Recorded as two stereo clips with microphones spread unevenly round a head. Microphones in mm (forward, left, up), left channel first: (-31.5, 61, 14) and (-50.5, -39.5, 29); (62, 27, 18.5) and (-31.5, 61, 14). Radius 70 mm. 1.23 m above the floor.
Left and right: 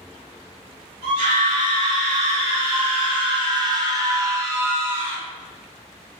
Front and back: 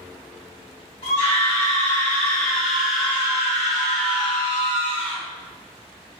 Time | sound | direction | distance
1.0 | a scream | 65° right | 1.3 m